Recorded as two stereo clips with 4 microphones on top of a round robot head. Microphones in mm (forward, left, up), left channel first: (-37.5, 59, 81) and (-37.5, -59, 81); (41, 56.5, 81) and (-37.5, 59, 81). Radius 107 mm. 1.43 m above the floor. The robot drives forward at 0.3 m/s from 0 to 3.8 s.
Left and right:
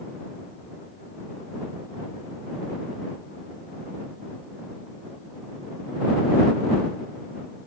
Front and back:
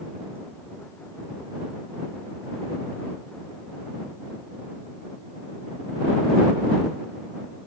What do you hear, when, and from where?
Only background noise.